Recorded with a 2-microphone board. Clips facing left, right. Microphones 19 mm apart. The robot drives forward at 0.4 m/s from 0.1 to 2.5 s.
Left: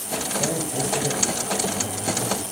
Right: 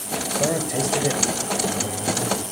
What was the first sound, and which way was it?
A man speaking, 30° right (ahead or behind).